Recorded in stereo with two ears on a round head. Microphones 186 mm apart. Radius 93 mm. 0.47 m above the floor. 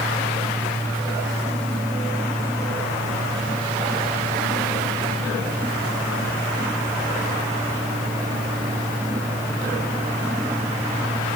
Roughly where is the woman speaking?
No woman speaking in this recording.